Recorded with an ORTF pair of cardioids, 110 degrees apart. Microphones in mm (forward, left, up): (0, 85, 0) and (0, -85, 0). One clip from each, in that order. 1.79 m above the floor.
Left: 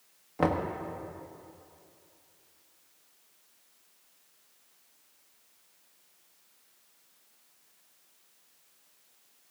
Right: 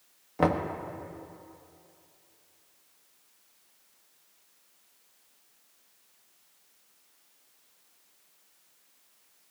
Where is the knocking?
10° right, 1.2 m.